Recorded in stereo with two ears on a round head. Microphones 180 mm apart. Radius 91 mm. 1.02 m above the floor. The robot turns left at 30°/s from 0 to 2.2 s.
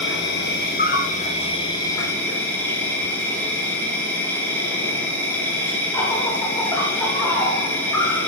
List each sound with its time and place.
0.0 s an insect: 80° left, 1.0 m; by 8.3 s 10° left, 1.0 m